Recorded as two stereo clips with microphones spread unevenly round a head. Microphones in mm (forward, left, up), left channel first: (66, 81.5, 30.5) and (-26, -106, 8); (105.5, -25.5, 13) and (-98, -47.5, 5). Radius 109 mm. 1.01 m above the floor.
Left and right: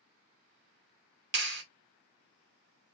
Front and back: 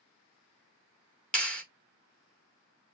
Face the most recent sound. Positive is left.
turn(degrees=-80)